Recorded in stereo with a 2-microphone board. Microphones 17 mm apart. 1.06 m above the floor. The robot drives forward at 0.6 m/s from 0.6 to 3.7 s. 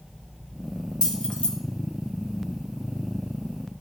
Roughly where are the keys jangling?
Left.